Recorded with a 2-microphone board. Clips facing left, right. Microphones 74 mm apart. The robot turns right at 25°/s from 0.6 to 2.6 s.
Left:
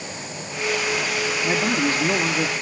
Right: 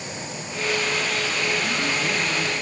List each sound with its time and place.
1.4 s a man speaking: 65° left (ahead or behind), 1.8 m; by 2.5 s 45° left (ahead or behind), 1.8 m